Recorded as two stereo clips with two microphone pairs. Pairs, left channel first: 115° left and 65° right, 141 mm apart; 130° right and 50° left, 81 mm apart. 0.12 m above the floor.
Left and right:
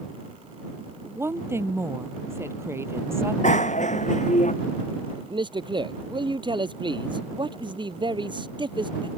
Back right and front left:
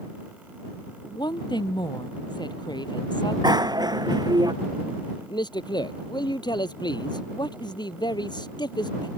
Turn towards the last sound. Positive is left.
turn(degrees=-120)